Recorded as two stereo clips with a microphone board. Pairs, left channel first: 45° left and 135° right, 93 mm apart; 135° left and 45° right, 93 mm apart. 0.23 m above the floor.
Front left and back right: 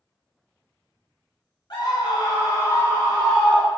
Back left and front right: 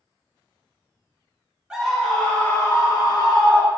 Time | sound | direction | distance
1.7 | a scream | 35° left | 1.8 m